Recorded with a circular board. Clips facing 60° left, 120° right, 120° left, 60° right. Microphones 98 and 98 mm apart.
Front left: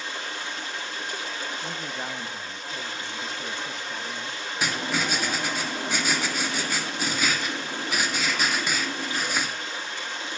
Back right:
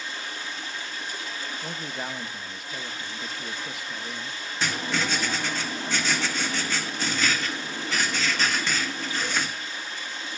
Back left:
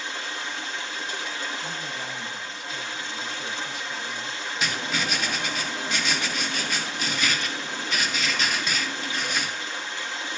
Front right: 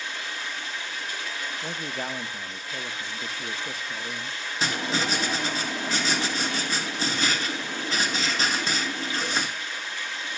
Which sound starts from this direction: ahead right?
A man speaking, at 1.6 s.